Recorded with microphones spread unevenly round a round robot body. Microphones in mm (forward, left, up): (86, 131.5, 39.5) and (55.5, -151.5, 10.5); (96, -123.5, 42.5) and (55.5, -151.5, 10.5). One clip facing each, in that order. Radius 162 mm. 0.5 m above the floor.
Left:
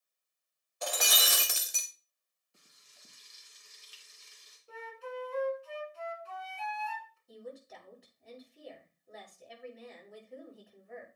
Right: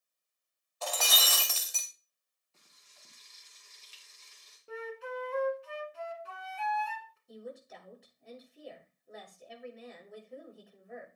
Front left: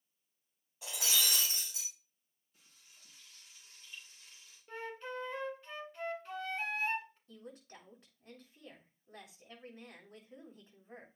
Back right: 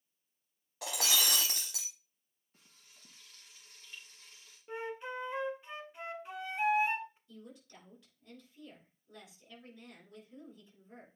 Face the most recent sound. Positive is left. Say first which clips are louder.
# right 1 dB, front left 1 dB
turn(degrees=-5)